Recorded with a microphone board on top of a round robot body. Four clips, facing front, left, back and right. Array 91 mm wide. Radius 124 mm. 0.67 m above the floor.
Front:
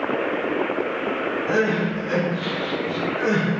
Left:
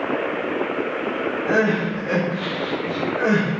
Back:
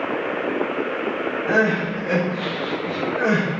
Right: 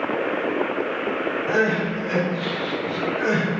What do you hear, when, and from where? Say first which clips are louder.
1.5 s crying: left 2 dB, back 3 dB; 135° left, 3.5 m